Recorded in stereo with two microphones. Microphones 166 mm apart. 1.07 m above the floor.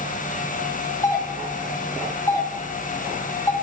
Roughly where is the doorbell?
Left.